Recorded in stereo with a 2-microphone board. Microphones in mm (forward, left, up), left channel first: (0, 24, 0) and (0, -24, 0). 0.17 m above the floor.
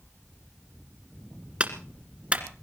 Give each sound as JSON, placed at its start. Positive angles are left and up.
{"t": 1.6, "sound": "a clap", "side_deg": -25, "distance_m": 1.9}